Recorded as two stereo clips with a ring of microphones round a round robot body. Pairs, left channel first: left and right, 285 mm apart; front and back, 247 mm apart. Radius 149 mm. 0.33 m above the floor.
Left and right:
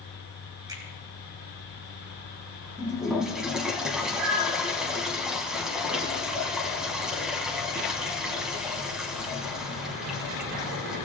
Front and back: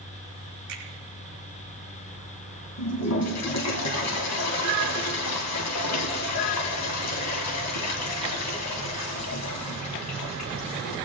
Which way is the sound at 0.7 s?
165° right.